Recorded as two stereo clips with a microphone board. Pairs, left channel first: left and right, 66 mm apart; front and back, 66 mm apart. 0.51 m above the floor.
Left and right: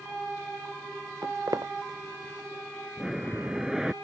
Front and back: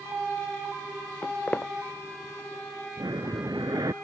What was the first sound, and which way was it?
Footsteps, 65° right.